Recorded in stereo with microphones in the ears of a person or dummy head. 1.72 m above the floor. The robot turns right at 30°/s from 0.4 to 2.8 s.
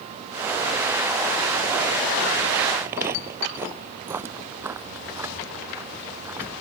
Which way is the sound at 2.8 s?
15° right (ahead or behind).